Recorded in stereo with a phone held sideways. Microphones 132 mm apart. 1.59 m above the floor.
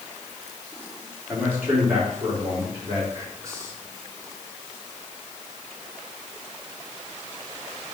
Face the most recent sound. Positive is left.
turn(degrees=-25)  # may be behind; listen again after turning